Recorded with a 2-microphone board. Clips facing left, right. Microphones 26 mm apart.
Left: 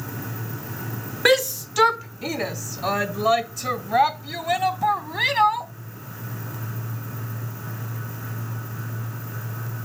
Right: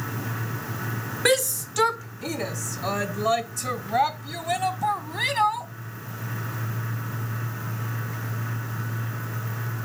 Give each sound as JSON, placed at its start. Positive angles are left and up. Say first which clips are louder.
{"t": 1.2, "sound": "a shout", "louder": "left 4 dB", "side_deg": 20}